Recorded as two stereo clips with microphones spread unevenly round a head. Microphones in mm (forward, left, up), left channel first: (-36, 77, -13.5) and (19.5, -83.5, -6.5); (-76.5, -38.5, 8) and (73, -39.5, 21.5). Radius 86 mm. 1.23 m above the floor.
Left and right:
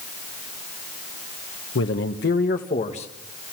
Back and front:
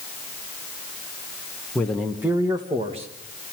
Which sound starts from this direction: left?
A man speaking, at 1.8 s.